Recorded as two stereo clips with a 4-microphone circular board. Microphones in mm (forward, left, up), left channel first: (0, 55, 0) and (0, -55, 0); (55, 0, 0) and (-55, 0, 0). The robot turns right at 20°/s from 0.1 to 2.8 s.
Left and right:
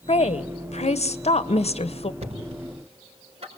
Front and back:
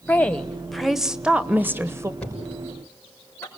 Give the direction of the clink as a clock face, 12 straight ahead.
I don't hear a clink.